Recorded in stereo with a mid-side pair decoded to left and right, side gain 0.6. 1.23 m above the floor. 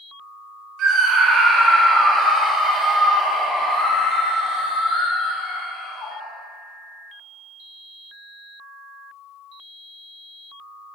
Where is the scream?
55° right, 1.8 m; by 6.2 s 50° left, 3.5 m.